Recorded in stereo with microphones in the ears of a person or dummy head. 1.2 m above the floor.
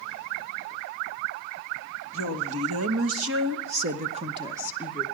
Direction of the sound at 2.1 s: 75° right (ahead or behind).